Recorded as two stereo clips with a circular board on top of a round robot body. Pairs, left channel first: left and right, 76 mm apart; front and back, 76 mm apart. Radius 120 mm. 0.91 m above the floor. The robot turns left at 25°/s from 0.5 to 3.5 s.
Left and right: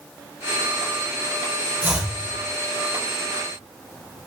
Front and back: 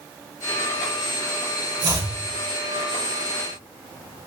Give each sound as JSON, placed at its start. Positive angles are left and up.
{"t": 1.8, "sound": "chopping", "azimuth_deg": -155, "distance_m": 4.0}